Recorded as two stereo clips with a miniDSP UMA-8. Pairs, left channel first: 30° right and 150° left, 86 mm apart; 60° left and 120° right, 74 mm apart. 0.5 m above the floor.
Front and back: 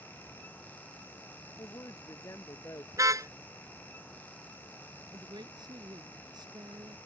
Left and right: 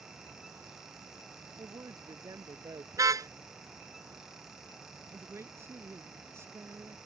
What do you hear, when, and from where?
1.6 s a woman speaking: 80° right; by 2.8 s 85° right
2.9 s a car horn: 160° right
5.1 s a woman speaking: 175° right